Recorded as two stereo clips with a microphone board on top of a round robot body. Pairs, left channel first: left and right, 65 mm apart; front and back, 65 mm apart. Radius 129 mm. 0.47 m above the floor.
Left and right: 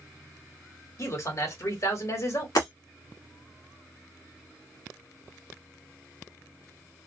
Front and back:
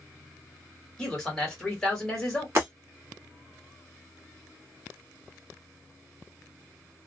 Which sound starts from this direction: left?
A man speaking, at 1.0 s.